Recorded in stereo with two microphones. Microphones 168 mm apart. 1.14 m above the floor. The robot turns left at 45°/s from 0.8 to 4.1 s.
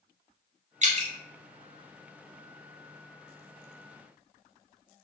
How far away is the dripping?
About 0.7 m.